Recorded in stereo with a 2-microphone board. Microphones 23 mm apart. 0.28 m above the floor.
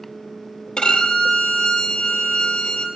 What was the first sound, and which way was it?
A violin, 45° left (ahead or behind).